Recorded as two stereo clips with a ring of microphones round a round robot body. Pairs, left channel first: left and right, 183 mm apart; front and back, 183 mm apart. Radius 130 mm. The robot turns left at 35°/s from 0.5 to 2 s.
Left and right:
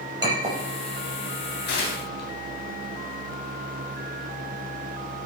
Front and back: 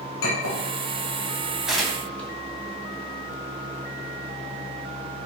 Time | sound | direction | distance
0.2 | a clink | 20° right | 5 m
1.7 | tearing paper | 95° left | 3 m